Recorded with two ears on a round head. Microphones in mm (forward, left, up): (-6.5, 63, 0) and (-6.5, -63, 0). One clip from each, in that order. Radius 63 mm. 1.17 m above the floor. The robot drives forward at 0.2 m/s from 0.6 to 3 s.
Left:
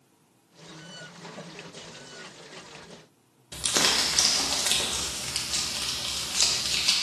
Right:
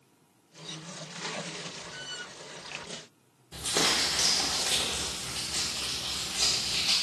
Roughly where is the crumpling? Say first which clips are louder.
Left 3 dB; left.